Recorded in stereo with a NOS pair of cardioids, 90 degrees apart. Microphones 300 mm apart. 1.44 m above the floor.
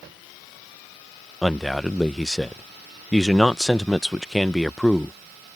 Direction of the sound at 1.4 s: Straight ahead.